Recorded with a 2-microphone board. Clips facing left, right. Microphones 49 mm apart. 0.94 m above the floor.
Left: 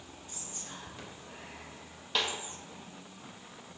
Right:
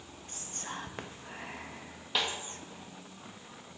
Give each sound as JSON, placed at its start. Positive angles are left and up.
{"t": 0.3, "sound": "whispering", "side_deg": -45, "distance_m": 0.6}
{"t": 2.1, "sound": "a snare drum", "side_deg": -5, "distance_m": 1.5}